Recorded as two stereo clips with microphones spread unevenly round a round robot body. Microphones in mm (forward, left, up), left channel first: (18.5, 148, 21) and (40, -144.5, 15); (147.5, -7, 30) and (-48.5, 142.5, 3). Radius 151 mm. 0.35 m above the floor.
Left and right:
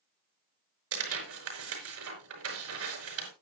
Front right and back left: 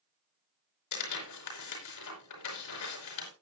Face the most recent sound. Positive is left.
turn(degrees=-50)